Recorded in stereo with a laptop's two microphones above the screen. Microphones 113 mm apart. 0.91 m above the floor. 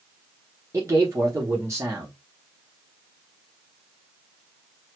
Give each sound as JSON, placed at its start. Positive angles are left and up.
{"t": 0.7, "sound": "a man speaking", "side_deg": -25, "distance_m": 0.9}